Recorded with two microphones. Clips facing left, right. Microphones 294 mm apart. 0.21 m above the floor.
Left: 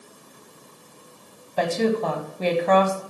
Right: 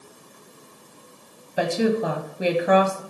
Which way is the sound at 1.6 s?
10° right (ahead or behind).